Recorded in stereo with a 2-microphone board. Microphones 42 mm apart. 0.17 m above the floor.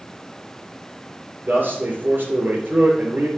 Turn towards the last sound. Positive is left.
turn(degrees=-50)  # may be behind; listen again after turning